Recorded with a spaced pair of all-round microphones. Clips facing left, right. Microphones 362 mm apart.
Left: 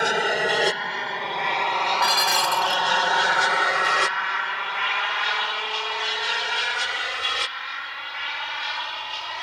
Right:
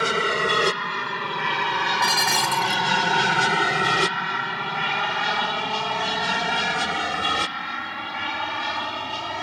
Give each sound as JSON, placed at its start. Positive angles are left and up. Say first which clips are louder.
{"t": 0.0, "sound": "an aircraft", "louder": "even", "side_deg": -10}
{"t": 2.0, "sound": "dishes clattering", "louder": "even", "side_deg": -65}